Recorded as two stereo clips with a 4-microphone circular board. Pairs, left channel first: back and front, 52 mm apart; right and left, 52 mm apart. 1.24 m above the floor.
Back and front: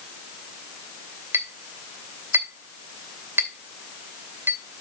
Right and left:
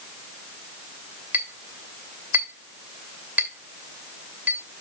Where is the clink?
40° left, 2.5 m.